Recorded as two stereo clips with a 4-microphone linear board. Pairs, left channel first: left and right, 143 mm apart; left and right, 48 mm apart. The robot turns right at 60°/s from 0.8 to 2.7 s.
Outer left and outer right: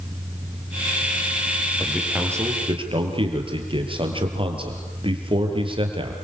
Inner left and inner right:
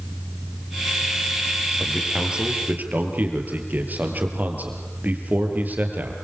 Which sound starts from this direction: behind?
A man speaking, at 1.8 s.